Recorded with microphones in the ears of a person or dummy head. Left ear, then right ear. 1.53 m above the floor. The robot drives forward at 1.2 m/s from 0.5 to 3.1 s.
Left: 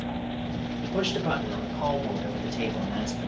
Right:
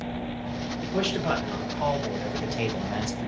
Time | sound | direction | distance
0.8 | a man speaking | 40° right (ahead or behind) | 3.5 m